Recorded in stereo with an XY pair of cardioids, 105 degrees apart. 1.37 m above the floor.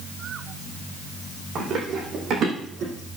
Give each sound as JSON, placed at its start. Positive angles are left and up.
{"t": 1.6, "sound": "running footsteps", "azimuth_deg": -65, "distance_m": 6.0}